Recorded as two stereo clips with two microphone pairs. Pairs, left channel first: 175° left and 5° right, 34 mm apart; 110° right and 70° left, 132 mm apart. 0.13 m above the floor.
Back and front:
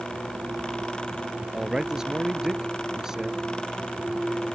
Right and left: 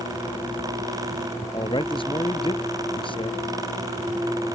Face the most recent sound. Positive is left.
turn(degrees=-70)